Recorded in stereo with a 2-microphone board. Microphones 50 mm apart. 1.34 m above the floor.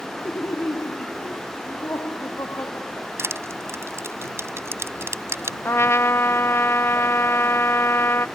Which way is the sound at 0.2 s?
45° left (ahead or behind).